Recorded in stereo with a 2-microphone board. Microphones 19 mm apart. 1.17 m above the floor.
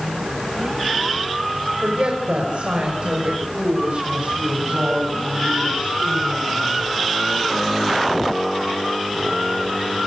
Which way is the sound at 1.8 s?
55° right (ahead or behind).